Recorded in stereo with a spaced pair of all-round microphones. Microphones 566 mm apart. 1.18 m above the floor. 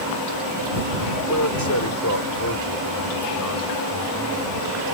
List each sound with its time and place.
1.3 s a man speaking: 30° left (ahead or behind); by 5.0 s 25° left (ahead or behind)